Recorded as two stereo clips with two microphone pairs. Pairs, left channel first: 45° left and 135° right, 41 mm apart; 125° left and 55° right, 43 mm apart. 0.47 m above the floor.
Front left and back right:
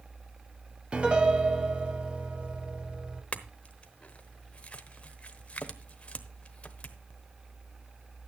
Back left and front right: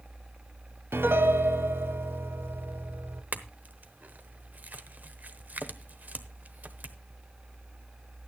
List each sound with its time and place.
0.9 s a piano: 70° right, 1.3 m
3.3 s a clink: 10° right, 1.0 m